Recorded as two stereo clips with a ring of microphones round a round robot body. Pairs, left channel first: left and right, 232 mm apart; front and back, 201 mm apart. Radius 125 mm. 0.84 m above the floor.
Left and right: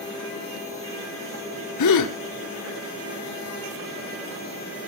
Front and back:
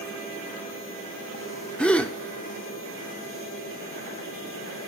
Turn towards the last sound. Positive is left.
turn(degrees=85)